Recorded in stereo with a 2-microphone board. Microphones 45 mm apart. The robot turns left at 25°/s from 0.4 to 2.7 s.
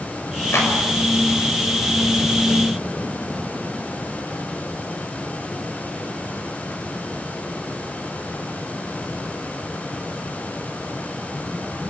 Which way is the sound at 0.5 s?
75° left (ahead or behind).